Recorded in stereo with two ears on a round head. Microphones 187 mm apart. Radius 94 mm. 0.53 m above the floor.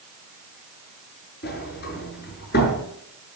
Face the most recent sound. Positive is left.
turn(degrees=50)  # may be behind; listen again after turning